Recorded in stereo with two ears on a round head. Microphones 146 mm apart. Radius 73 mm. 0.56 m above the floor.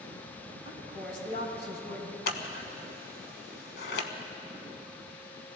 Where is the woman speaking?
70° left (ahead or behind), 4 m.